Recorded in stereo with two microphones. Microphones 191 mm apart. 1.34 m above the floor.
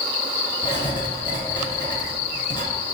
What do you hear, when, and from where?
0.6 s writing: 25° left (ahead or behind), 1.0 m